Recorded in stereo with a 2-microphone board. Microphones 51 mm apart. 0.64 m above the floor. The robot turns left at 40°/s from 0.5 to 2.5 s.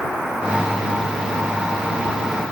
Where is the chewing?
I don't hear chewing.